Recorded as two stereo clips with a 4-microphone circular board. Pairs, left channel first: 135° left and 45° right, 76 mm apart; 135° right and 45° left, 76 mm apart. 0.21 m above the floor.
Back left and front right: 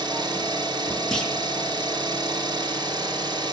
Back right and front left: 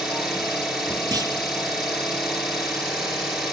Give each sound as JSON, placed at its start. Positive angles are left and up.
{"t": 0.0, "sound": "an engine running", "azimuth_deg": -35, "distance_m": 2.0}
{"t": 1.1, "sound": "a clunk", "azimuth_deg": 55, "distance_m": 1.3}